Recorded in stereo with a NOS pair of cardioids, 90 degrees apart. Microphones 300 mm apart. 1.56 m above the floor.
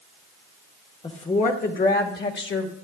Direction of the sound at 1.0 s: 20° left.